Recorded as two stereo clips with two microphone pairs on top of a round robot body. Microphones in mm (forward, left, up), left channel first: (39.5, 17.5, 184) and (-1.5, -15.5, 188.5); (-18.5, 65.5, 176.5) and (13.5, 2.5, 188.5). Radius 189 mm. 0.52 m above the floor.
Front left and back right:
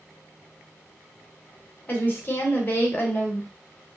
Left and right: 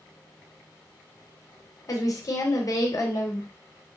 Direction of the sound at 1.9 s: 90° left.